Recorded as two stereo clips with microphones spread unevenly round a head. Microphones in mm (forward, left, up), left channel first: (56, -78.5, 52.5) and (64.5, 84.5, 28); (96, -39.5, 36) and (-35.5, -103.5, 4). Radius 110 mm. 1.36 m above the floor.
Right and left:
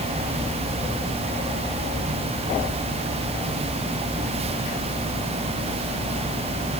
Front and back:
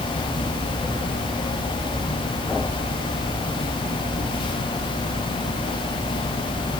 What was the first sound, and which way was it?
Only background noise.